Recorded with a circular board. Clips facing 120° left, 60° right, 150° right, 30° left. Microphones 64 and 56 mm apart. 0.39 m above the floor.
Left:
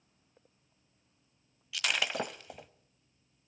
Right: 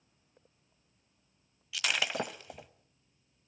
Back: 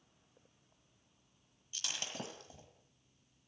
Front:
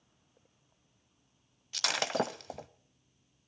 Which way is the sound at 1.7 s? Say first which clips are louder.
Even, front 13 dB; 30° left.